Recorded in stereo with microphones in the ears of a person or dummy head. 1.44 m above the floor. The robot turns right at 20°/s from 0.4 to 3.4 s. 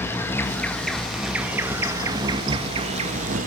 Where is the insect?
165° left, 1.9 m; by 3.5 s 135° right, 1.9 m.